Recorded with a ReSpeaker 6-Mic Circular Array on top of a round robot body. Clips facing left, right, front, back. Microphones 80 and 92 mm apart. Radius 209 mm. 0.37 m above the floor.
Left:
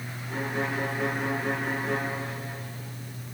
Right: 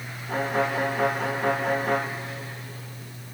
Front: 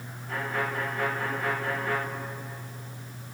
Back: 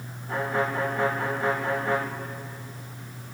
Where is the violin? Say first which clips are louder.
Right 5 dB, back 4 dB; 115° right, 1.8 m.